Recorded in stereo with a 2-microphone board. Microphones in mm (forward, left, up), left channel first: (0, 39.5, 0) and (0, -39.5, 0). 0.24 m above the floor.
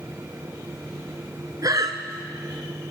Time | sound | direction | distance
1.6 | breathing | 50° right (ahead or behind) | 0.5 m